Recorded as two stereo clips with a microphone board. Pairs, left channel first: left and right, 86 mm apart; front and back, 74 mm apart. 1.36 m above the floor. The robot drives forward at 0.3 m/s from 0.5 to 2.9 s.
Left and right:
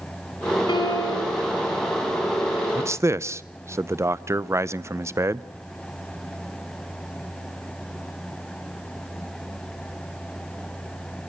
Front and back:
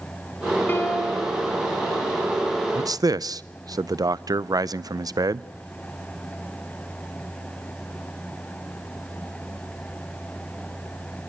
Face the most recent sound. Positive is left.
turn(degrees=-145)